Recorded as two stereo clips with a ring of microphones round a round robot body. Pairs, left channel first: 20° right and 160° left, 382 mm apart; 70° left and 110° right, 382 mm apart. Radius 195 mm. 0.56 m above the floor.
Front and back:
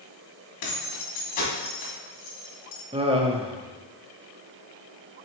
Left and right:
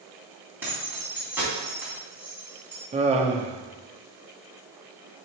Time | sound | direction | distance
0.6 | keys jangling | 25° right | 3 m
2.9 | laughter | 155° right | 0.8 m